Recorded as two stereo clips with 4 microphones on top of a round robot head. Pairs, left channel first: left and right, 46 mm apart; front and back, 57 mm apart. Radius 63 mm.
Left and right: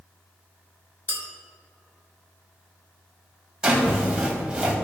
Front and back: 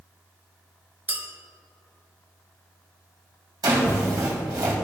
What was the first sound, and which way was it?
A clink, 125° left.